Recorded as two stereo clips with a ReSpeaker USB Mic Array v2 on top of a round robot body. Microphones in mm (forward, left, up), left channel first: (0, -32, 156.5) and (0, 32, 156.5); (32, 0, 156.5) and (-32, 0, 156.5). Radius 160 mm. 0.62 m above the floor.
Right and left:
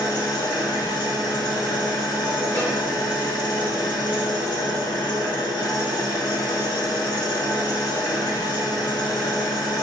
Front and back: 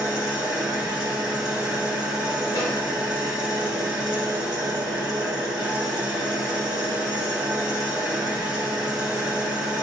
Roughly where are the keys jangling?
No keys jangling in this recording.